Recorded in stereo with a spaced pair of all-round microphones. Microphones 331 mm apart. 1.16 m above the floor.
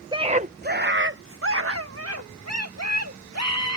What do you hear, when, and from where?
0.1 s a scream: 15° right (ahead or behind); by 3.8 s 50° right (ahead or behind)